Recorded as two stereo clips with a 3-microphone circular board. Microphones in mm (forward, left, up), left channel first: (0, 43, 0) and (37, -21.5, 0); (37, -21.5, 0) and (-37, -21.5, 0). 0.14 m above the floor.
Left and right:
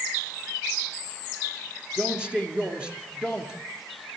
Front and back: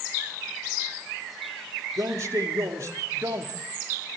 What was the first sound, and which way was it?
A man speaking, 135° right.